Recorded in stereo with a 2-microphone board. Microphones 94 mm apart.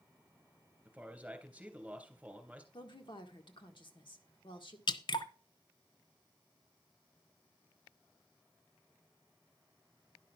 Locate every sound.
0.8 s a man speaking: 10° right (ahead or behind), 3 m
2.7 s a woman speaking: 55° left (ahead or behind), 1.6 m
4.9 s dripping: 55° left (ahead or behind), 0.9 m